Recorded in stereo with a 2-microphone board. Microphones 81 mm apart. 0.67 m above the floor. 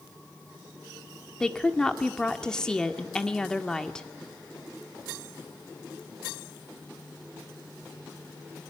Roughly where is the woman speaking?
Centre.